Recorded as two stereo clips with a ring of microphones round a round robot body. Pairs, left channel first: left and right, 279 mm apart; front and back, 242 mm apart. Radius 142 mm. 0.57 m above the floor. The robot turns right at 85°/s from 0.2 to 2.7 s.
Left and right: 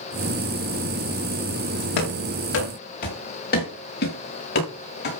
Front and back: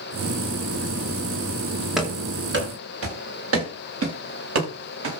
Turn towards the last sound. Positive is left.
turn(degrees=145)